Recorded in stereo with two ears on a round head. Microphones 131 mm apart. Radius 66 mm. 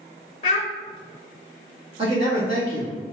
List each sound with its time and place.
0.4 s a child speaking: 45° left (ahead or behind), 0.5 m
2.0 s a man speaking: 40° right (ahead or behind), 1.2 m